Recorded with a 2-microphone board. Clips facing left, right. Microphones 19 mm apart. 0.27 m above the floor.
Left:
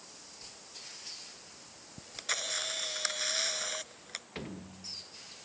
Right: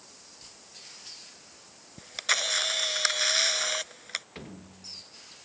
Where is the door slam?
5° left (ahead or behind).